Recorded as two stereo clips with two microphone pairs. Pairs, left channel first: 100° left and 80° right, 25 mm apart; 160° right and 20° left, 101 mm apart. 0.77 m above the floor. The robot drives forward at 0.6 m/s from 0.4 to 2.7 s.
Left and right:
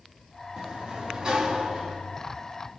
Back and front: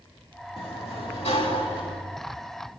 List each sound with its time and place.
0.6 s a sliding door: 140° right, 4 m; by 2.0 s 145° right, 4.5 m